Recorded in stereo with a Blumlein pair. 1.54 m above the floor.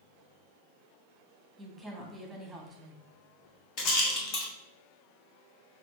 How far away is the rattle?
About 1.3 m.